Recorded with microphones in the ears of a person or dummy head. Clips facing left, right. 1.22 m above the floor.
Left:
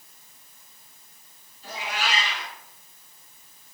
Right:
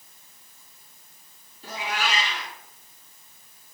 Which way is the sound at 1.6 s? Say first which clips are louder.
Right 2 dB; 45° right (ahead or behind).